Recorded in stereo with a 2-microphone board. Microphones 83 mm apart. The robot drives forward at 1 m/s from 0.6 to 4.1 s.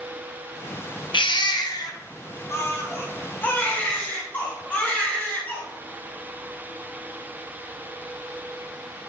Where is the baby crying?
75° left (ahead or behind), 1.3 m; by 5.6 s 20° left (ahead or behind), 3.5 m.